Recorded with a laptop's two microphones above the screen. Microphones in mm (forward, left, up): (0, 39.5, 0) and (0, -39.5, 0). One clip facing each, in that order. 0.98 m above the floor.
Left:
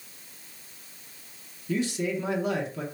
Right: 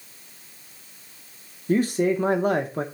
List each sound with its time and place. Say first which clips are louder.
1.7 s a man speaking: right 7 dB; 45° right (ahead or behind), 0.9 m